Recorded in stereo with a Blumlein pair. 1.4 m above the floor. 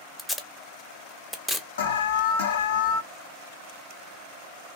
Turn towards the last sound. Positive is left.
turn(degrees=60)